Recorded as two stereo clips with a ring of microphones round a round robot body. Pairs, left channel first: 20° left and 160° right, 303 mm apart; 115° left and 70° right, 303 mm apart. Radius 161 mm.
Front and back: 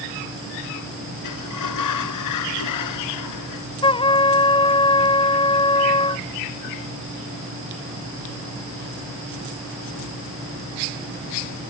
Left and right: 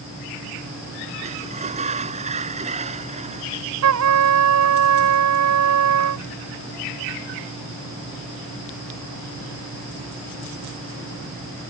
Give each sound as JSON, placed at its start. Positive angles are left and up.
{"t": 1.2, "sound": "a sliding door", "azimuth_deg": 0}
{"t": 3.8, "sound": "a trumpet", "azimuth_deg": -50}